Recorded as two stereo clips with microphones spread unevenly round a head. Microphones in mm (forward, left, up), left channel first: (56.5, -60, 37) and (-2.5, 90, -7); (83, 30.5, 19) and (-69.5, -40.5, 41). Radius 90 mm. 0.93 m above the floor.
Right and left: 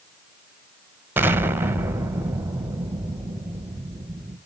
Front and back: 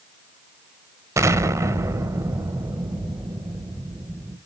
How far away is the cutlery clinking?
No cutlery clinking in this recording.